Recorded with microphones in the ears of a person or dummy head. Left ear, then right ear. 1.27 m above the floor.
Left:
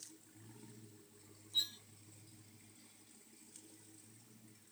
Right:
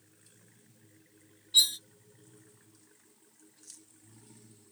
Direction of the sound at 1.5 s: 45° right (ahead or behind).